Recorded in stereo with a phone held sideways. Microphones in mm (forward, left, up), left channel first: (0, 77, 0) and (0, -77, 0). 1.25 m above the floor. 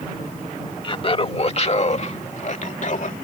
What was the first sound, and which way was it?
Laughter, 35° left (ahead or behind).